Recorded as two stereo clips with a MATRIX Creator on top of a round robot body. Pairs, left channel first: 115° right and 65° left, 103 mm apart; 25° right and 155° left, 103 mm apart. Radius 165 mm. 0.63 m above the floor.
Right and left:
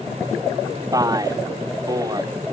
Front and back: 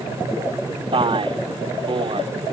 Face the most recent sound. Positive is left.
turn(degrees=120)